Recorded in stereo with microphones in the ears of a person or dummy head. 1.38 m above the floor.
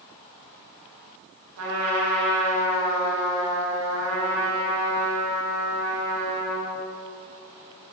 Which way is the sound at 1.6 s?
85° right.